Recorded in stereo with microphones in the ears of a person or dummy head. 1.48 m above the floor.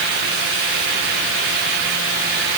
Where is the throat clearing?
I don't hear throat clearing.